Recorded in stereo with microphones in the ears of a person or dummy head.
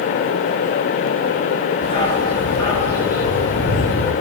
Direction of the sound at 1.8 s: 25° left (ahead or behind).